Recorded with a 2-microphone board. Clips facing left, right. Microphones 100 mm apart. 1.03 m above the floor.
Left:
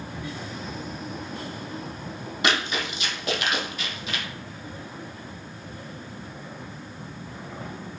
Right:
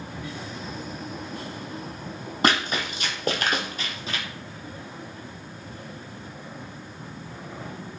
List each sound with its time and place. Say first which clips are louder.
2.4 s running footsteps: right 2 dB; 45° right (ahead or behind), 1.4 m; by 4.2 s 35° right (ahead or behind), 1.4 m